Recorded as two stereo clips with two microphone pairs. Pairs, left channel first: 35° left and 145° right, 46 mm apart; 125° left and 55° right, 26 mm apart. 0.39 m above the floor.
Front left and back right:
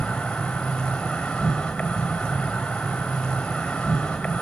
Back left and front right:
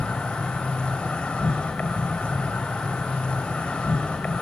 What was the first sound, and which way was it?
An insect, 110° left.